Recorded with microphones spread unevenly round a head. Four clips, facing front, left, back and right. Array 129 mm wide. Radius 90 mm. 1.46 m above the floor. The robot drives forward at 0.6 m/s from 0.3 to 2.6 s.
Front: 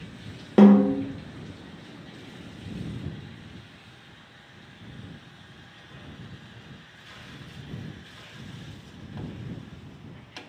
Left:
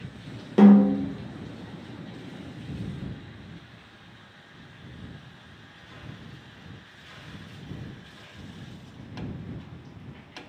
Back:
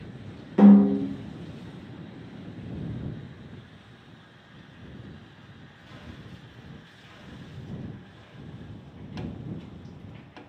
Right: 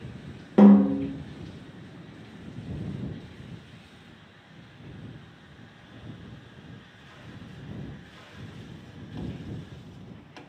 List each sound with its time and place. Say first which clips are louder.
0.6 s a snare drum: even, even; 5° right, 0.9 m; by 1.0 s 10° right, 0.7 m